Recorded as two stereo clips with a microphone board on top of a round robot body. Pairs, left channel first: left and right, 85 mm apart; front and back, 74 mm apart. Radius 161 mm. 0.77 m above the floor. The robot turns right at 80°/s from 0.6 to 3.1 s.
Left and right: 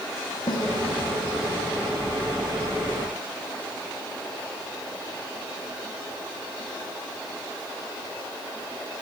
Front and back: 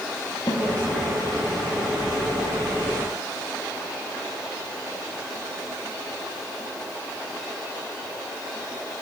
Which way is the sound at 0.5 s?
60° left.